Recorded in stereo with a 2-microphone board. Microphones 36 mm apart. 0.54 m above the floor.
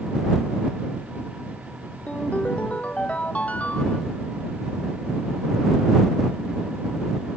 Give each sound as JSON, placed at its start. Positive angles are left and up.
{"t": 2.1, "sound": "a ringtone", "side_deg": 40}